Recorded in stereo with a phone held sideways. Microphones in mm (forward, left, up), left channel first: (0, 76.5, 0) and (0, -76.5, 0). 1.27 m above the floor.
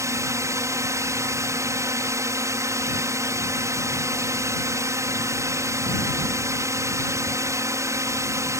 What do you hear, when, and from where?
0.0 s a drone: 20° right (ahead or behind)